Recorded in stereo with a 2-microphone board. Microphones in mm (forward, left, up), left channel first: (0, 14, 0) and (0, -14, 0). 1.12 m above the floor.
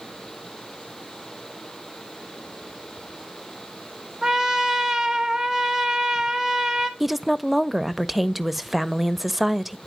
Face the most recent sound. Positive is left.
turn(degrees=-5)  # may be behind; listen again after turning